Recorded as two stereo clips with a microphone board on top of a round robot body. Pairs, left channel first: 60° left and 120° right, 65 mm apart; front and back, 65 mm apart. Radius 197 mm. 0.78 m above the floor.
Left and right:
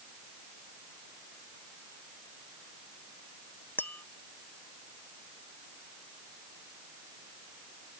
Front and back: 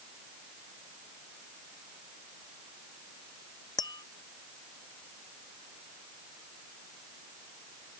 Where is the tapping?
5° right.